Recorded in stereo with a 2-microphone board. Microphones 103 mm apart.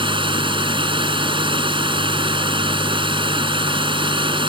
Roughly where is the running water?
Right.